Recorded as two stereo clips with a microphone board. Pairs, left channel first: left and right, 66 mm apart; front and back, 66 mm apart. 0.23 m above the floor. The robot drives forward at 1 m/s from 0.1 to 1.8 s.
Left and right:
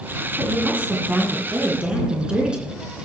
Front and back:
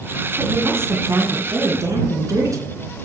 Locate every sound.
0.4 s a woman speaking: 140° right, 2.0 m; by 2.7 s 160° right, 3 m